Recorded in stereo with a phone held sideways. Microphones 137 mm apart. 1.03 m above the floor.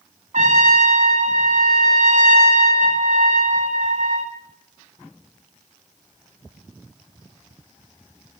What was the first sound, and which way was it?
A trumpet, 65° right (ahead or behind).